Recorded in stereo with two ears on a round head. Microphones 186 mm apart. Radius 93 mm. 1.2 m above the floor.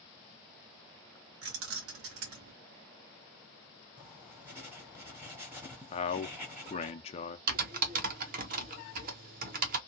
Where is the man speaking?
30° left (ahead or behind), 0.5 m.